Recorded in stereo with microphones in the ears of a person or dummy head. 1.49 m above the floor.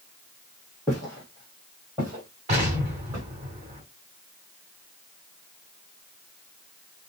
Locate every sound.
0.9 s footsteps: 5° left (ahead or behind), 1.6 m; by 3.3 s 15° right (ahead or behind), 2.5 m
2.5 s an explosion: 30° right (ahead or behind), 2.5 m